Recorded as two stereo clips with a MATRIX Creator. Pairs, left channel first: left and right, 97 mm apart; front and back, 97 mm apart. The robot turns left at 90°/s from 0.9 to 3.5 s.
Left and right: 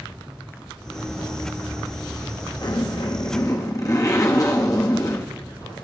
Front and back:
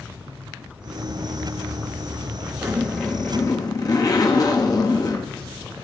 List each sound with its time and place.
2.6 s a zipper: 125° left, 1.3 m; by 5.8 s 45° left, 1.3 m